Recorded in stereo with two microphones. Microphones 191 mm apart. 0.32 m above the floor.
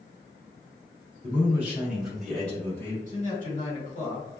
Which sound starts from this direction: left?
A man speaking, at 3.1 s.